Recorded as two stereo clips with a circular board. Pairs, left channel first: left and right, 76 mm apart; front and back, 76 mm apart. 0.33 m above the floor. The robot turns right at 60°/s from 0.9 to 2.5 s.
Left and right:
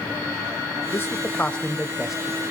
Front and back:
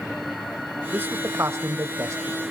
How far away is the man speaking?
About 1.0 m.